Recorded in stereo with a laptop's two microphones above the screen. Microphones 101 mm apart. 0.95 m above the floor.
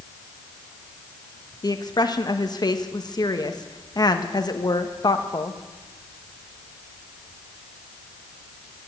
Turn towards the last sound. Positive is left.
turn(degrees=40)  # may be behind; listen again after turning